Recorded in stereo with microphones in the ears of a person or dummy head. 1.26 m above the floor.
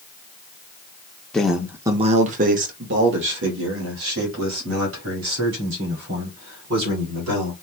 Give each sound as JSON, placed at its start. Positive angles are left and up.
{"t": 1.3, "sound": "a man speaking", "side_deg": 0, "distance_m": 0.6}